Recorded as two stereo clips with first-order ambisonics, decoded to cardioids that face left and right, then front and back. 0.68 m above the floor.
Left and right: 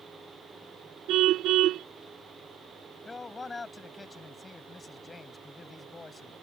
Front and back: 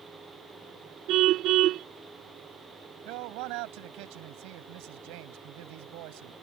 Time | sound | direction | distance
1.1 | a car horn | 135° right | ?
3.0 | a man speaking | 165° left | ?